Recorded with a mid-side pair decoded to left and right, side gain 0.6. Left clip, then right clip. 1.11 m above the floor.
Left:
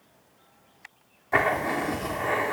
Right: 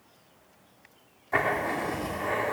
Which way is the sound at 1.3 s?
25° left.